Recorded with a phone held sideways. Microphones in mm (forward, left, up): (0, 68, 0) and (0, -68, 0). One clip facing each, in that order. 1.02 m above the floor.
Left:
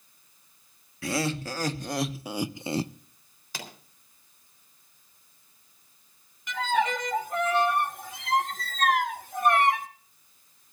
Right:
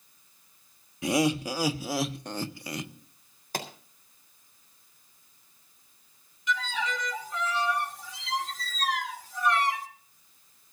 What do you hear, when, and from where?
1.0 s laughter: 20° right (ahead or behind), 1.4 m; by 2.9 s 40° left (ahead or behind), 0.6 m
3.5 s a pop: 50° right (ahead or behind), 3.5 m
6.5 s a violin: 55° left (ahead or behind), 1.0 m